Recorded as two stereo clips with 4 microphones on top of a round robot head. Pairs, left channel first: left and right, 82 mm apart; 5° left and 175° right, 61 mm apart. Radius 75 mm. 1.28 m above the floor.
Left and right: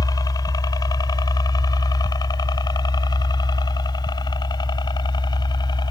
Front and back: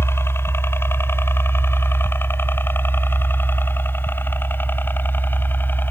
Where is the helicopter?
50° left; by 5.9 s 60° left.